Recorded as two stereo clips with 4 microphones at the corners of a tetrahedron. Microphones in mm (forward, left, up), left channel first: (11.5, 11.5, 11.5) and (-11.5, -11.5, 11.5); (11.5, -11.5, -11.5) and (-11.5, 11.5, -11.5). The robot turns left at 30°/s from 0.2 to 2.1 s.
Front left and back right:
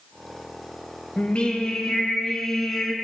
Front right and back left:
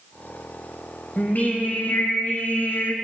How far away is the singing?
About 2.5 m.